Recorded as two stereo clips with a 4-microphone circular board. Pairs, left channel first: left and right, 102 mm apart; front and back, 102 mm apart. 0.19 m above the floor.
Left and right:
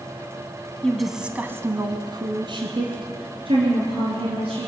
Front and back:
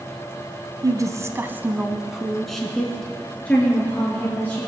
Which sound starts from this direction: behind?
A woman speaking, at 0.8 s.